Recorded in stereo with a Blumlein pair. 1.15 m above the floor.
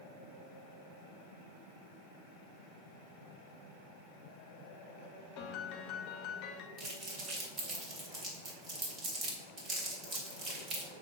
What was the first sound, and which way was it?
A piano, 40° left.